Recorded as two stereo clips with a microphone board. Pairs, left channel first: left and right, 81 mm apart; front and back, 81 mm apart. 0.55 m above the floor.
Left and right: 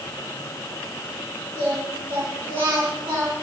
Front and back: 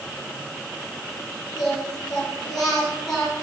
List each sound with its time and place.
1.6 s singing: 85° right, 7.5 m